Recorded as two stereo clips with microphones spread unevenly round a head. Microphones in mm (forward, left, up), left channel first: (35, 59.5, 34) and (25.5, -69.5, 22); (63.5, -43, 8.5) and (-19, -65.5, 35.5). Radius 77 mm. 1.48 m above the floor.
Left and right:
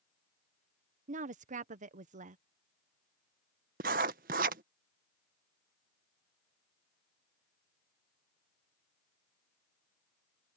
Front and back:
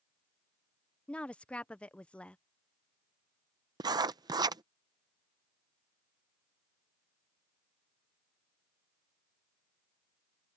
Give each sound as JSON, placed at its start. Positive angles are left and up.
{"t": 1.1, "sound": "a woman speaking", "azimuth_deg": -65}
{"t": 3.8, "sound": "writing", "azimuth_deg": -125}